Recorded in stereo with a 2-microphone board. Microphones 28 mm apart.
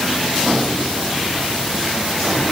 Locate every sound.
Only background noise.